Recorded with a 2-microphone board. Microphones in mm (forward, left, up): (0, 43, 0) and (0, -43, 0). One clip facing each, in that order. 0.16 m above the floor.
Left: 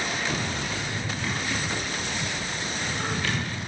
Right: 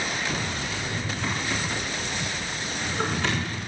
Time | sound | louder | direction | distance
0.7 | a drawer | right 1 dB | 85° right | 4 m